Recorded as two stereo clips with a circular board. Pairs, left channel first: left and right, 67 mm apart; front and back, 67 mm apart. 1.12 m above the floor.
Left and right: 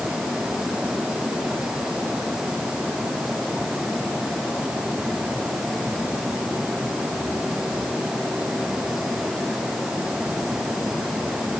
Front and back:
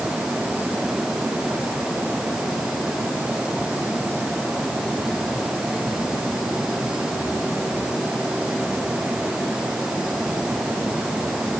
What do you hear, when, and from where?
Only background noise.